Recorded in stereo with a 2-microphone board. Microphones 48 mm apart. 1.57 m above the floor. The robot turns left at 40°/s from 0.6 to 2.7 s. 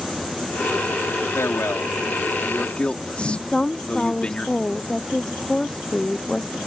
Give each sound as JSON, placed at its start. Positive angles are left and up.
{"t": 1.4, "sound": "a man speaking", "azimuth_deg": 80}
{"t": 3.5, "sound": "a woman speaking", "side_deg": 15}